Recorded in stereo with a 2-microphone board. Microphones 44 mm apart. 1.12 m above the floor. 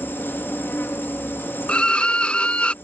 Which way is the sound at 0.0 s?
65° left (ahead or behind).